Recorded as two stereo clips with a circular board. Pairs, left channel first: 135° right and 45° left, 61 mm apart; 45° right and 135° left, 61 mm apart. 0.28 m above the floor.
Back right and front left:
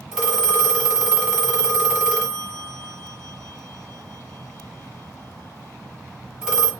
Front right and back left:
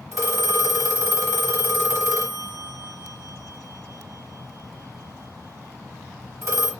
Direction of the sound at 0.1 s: 120° left.